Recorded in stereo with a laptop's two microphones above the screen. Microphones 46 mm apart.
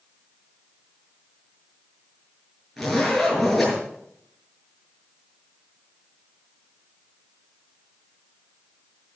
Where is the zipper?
Centre (ahead or behind), 7.5 m.